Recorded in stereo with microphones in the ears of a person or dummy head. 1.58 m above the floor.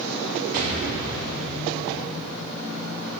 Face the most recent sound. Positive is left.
turn(degrees=-50)  # may be behind; listen again after turning